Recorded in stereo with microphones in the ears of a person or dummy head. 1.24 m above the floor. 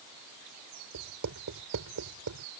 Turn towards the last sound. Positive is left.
turn(degrees=-70)  # may be behind; listen again after turning